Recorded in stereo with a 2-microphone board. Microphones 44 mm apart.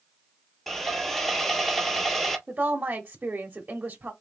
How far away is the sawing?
About 1.5 m.